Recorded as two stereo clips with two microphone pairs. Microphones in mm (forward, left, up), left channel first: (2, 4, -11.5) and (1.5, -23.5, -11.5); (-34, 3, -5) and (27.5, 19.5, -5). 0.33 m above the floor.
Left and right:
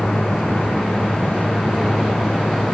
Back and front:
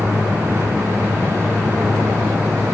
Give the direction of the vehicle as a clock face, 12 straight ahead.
10 o'clock.